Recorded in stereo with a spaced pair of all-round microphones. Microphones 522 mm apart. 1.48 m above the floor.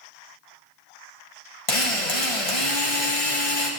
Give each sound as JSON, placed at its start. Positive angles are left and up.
{"t": 1.7, "sound": "a drill", "side_deg": 85, "distance_m": 1.7}